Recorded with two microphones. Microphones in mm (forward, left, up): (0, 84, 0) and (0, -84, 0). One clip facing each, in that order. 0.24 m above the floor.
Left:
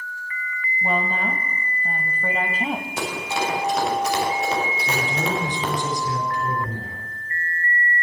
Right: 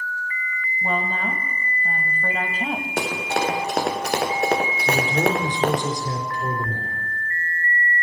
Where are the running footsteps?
65° right (ahead or behind), 4 m.